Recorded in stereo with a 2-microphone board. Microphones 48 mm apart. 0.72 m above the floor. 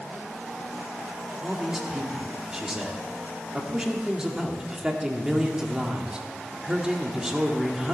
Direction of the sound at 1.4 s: 15° right (ahead or behind).